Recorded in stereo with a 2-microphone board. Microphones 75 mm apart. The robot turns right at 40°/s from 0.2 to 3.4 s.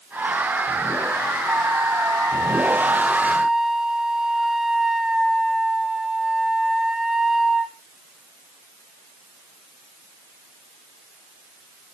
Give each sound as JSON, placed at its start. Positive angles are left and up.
{"t": 1.5, "sound": "a flute", "azimuth_deg": -85, "distance_m": 1.6}